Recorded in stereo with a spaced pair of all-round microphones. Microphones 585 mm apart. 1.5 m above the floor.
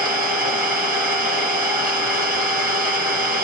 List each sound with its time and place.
0.0 s an engine running: 15° right (ahead or behind), 1.2 m